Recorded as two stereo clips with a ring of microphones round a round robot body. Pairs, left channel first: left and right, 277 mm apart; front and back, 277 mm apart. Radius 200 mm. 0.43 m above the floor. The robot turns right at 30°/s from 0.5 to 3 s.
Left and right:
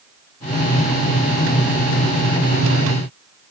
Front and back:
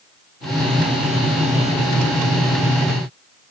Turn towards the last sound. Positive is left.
No sound to turn to.